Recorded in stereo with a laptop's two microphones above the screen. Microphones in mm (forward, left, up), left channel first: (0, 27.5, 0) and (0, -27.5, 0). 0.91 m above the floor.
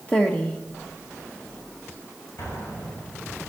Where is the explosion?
50° left (ahead or behind), 6 m.